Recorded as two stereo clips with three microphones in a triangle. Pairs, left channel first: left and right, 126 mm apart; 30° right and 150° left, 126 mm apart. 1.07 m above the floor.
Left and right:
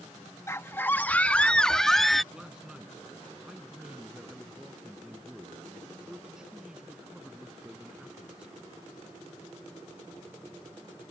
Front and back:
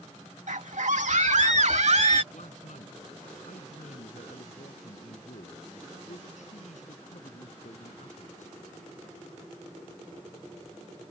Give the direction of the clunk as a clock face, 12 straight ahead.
No clunk in this recording.